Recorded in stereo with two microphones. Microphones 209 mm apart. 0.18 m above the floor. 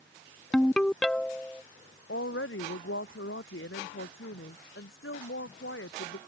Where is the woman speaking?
75° left (ahead or behind).